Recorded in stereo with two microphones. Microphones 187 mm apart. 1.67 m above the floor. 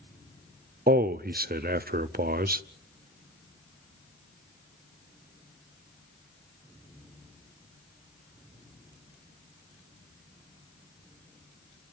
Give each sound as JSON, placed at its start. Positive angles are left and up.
{"t": 0.9, "sound": "a man speaking", "side_deg": -55, "distance_m": 0.7}